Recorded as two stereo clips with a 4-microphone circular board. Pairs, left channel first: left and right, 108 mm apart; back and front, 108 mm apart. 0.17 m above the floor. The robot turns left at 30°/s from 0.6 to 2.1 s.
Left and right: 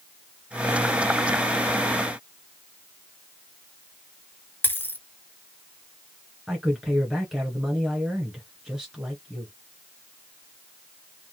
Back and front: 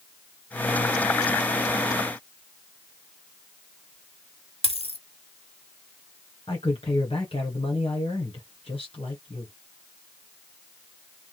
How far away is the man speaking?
About 2.5 m.